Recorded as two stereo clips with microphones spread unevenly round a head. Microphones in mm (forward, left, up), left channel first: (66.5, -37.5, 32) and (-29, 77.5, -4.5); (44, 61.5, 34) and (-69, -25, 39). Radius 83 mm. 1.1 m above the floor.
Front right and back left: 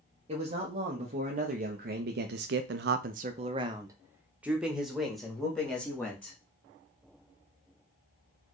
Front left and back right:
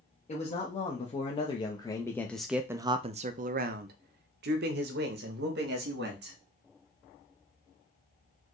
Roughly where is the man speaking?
Left.